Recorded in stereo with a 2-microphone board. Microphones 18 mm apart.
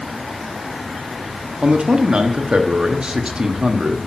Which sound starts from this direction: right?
A man speaking, at 1.6 s.